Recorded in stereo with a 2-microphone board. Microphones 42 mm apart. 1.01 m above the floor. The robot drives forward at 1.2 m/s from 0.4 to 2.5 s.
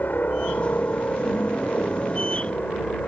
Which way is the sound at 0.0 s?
45° left (ahead or behind).